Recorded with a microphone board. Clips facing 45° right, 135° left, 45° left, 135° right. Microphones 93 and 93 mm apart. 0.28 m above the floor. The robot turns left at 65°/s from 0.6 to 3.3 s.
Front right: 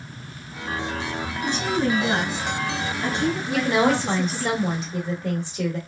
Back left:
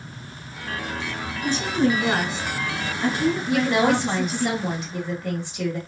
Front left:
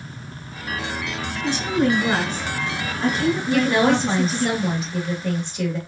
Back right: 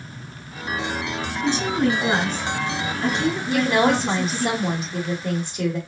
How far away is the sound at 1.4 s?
About 1.6 m.